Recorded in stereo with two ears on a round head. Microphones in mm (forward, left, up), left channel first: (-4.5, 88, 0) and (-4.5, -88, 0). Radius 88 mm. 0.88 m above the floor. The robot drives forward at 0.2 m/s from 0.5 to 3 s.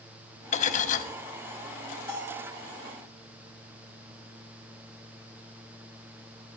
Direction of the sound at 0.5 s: 35° left (ahead or behind).